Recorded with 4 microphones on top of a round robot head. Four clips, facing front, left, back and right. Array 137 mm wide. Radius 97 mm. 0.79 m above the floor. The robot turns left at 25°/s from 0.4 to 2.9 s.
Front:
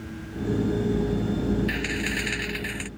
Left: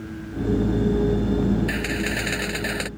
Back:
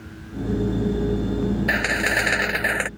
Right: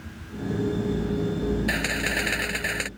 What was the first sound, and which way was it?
A camera shutter, 170° right.